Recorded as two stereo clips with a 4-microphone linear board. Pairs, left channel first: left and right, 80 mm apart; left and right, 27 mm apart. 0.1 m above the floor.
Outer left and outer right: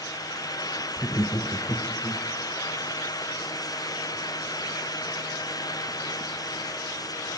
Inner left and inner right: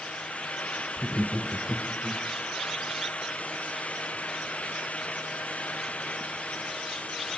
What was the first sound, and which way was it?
Laughter, 30° left (ahead or behind).